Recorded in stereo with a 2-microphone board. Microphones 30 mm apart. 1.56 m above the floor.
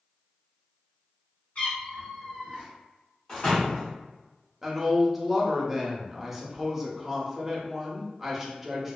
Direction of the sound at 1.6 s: 45° left (ahead or behind).